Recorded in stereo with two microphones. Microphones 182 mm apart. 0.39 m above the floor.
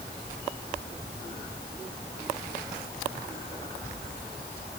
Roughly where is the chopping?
I don't hear chopping.